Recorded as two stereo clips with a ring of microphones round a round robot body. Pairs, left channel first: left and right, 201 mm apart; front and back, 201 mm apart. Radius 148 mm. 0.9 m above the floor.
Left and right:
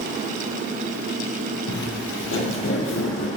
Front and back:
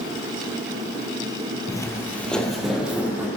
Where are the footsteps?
70° left, 1.6 m; by 3.3 s 100° left, 2.5 m.